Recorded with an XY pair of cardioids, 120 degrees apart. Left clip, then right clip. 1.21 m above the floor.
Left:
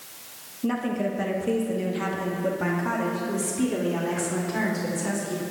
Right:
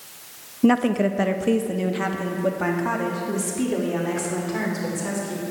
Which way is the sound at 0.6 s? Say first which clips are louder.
Right 7 dB; 55° right.